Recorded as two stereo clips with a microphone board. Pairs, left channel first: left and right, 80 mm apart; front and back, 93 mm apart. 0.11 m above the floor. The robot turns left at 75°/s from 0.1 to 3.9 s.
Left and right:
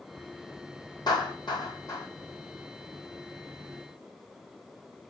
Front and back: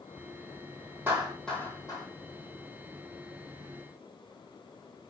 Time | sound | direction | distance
1.1 | a clap | 115° left | 3 m